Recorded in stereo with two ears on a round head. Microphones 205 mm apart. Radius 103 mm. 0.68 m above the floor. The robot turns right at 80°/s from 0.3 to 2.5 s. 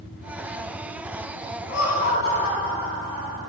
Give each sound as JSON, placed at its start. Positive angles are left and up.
{"t": 1.7, "sound": "laughter", "azimuth_deg": 60, "distance_m": 3.0}